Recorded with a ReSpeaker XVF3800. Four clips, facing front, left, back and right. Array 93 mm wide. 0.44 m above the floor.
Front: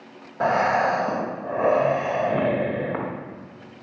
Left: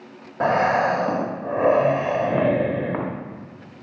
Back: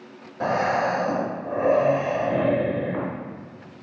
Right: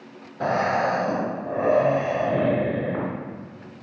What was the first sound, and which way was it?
Breathing, 60° left.